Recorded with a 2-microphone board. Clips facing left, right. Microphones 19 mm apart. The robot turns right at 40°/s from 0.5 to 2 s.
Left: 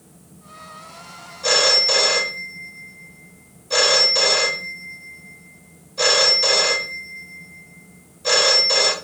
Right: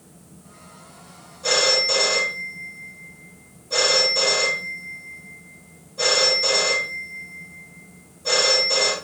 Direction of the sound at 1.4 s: 40° left (ahead or behind).